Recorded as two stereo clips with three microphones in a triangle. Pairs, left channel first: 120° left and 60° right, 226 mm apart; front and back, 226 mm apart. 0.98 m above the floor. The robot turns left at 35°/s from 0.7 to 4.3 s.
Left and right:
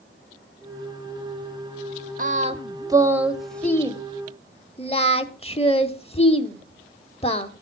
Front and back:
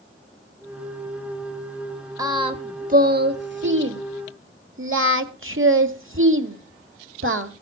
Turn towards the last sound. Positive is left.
turn(degrees=180)